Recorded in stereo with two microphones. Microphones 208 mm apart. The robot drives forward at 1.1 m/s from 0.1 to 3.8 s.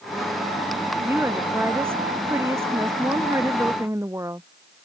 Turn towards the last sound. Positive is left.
turn(degrees=-15)  # may be behind; listen again after turning